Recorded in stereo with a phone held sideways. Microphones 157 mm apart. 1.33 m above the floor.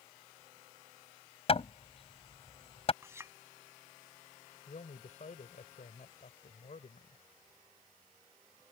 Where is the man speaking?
55° left (ahead or behind).